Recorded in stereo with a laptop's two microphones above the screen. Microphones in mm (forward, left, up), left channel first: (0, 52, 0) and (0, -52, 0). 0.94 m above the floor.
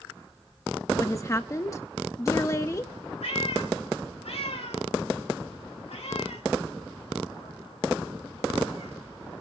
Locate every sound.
0.9 s a woman speaking: 30° left (ahead or behind), 1.0 m
3.2 s a cat meowing: 80° left, 3.5 m